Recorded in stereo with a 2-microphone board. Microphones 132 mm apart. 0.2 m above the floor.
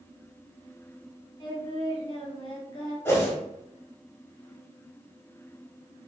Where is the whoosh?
20° left (ahead or behind), 0.9 m.